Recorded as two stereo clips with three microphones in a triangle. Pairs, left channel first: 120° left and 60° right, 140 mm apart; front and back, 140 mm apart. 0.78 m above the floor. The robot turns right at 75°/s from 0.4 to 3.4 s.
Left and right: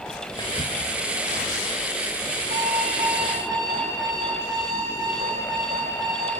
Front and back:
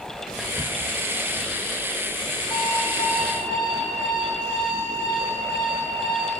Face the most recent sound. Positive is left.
turn(degrees=5)